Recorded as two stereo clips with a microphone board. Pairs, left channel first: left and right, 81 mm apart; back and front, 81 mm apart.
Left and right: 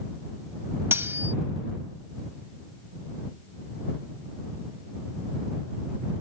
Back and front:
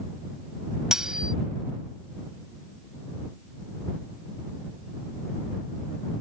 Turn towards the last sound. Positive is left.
turn(degrees=-70)